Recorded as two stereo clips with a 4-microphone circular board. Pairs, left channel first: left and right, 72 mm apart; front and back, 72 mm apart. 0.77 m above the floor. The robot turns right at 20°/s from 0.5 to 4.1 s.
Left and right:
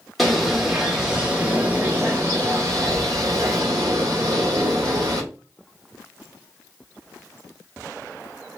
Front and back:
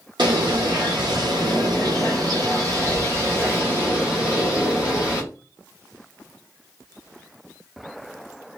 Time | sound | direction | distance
0.2 | a bird | straight behind | 1.3 m